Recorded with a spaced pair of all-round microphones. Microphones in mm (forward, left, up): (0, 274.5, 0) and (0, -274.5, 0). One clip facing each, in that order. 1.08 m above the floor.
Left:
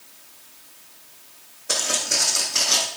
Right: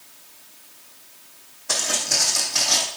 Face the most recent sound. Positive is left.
turn(degrees=-15)  # may be behind; listen again after turning